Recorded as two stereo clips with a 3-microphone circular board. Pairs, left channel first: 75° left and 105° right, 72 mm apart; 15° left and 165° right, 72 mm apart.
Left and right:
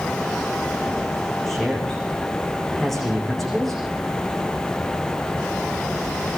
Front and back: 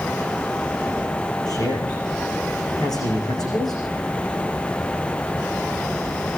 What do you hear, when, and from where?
1.5 s a man speaking: 10° right, 9.5 m